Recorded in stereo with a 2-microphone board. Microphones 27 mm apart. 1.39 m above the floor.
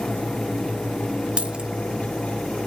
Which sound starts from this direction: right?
A dropped coin, at 1.4 s.